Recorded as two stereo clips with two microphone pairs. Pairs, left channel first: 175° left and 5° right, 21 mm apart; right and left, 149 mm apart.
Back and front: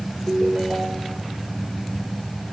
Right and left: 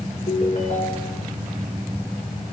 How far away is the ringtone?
About 7 m.